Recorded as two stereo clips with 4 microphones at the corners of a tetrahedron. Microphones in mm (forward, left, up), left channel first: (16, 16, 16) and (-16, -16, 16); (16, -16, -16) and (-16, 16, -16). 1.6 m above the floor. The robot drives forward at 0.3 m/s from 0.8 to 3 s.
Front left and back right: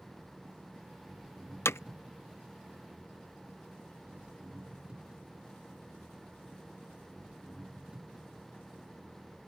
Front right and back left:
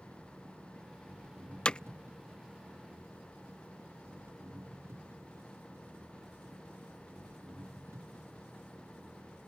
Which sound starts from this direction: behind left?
An engine running, at 0.0 s.